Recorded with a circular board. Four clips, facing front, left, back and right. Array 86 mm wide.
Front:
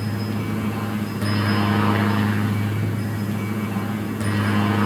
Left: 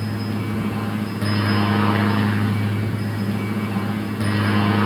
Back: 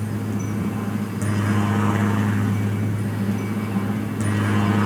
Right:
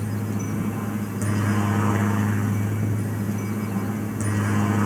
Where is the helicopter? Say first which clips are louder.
Left 3 dB, even; 50° left; by 4.9 s 80° left.